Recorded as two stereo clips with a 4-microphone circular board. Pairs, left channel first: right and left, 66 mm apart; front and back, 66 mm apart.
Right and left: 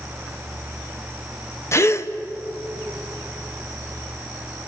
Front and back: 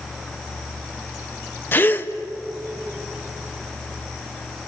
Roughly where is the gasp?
Ahead right.